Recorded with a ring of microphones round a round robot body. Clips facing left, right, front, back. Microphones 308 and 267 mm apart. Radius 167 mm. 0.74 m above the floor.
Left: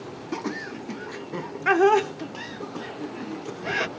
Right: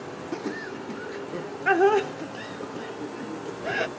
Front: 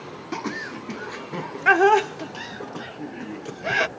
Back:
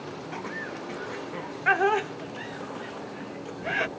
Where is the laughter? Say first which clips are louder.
Left 1 dB, front 5 dB; 15° left.